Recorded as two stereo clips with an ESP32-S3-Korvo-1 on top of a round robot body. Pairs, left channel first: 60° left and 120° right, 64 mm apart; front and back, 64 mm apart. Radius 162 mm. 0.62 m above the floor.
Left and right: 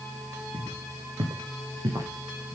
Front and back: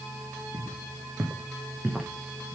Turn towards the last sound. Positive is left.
turn(degrees=-95)